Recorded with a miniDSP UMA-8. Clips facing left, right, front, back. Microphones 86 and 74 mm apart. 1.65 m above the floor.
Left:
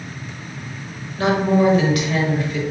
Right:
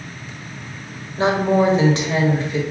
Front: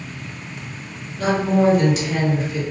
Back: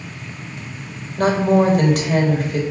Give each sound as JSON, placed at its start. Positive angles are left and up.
{"t": 1.2, "sound": "a woman speaking", "azimuth_deg": -150, "distance_m": 0.9}